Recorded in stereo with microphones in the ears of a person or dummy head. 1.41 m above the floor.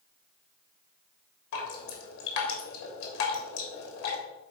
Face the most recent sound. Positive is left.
turn(degrees=75)  # may be behind; listen again after turning